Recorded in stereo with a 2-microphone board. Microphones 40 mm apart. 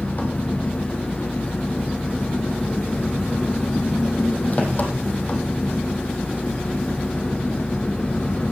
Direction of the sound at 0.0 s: 45° left (ahead or behind).